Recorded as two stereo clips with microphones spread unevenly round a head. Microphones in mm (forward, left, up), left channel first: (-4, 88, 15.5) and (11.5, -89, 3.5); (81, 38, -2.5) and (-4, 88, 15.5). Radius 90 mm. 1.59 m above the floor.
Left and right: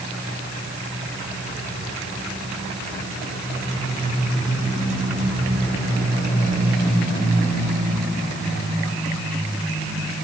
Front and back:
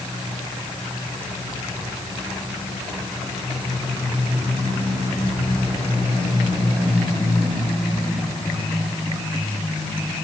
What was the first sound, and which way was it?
Only background noise.